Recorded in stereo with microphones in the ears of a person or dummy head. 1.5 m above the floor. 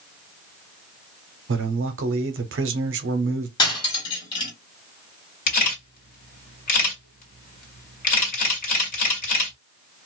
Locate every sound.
1.5 s a man speaking: 65° right (ahead or behind), 0.7 m
3.6 s cutlery clinking: 25° left (ahead or behind), 1.5 m
5.5 s a camera shutter: 45° left (ahead or behind), 1.6 m